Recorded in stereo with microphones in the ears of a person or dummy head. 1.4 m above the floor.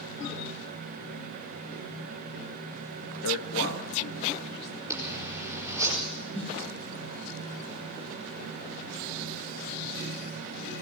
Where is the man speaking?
65° left (ahead or behind), 1.7 m; by 4.8 s 40° left (ahead or behind), 3 m.